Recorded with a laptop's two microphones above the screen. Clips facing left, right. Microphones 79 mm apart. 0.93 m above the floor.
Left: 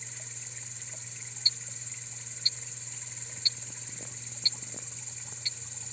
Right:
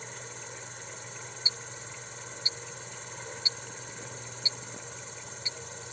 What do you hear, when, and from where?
0.0 s an insect: 60° right (ahead or behind)
1.4 s ticking: 20° right (ahead or behind)